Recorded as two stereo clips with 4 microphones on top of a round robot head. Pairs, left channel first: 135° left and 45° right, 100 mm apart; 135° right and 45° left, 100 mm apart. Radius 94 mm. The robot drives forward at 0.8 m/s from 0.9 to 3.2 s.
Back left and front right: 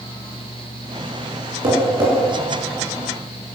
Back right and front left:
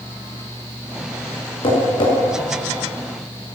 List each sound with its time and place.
1.6 s tapping: 90° right, 5.5 m; by 2.1 s 95° right, 6 m